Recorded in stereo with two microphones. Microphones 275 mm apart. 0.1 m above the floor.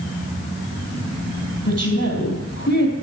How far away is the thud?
I don't hear a thud.